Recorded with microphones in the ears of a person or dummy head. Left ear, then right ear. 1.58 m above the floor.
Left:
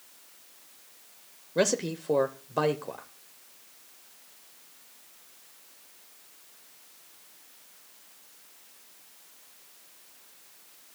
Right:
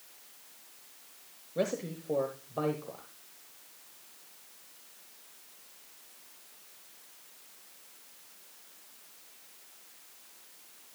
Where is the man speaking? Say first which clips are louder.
Left 6 dB; 65° left (ahead or behind), 0.8 m.